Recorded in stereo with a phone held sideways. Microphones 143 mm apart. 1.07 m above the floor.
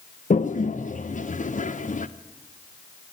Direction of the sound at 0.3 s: 65° left (ahead or behind).